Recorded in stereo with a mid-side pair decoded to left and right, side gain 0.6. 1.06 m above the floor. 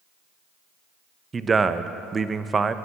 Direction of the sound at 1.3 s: 25° right.